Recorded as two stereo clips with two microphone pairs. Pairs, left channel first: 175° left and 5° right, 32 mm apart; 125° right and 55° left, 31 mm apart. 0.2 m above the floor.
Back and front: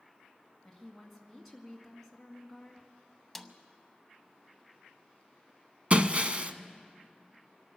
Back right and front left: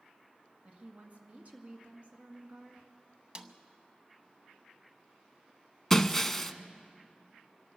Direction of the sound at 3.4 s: 80° left.